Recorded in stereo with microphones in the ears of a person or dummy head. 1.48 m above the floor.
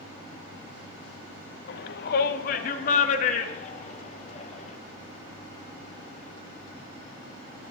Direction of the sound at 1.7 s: 65° left (ahead or behind).